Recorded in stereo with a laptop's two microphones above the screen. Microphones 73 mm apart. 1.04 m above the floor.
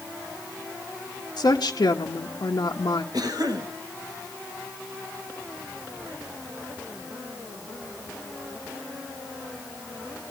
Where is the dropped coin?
No dropped coin in this recording.